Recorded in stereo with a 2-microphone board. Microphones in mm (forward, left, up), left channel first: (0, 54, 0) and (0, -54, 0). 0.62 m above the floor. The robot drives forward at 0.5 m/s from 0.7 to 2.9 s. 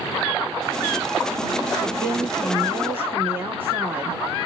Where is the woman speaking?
30° right (ahead or behind), 0.6 m; by 4.2 s 20° right (ahead or behind), 1.0 m.